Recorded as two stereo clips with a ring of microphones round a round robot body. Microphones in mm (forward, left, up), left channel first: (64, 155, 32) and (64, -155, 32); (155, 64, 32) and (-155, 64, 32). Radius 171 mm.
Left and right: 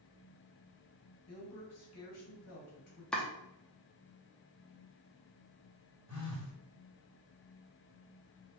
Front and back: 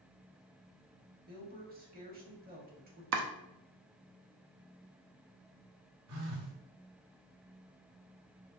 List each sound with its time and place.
1.3 s a woman speaking: 125° left, 1.6 m
3.1 s chopping: 175° left, 0.7 m
6.1 s a phone buzzing: 145° left, 1.2 m